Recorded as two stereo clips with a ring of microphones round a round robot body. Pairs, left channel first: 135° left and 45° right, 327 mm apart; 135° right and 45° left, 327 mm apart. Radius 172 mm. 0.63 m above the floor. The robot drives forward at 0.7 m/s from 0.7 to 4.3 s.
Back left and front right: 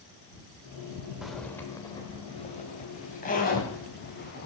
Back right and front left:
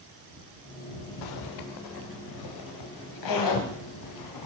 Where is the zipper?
135° right, 1.2 m; by 4.5 s 165° right, 3 m.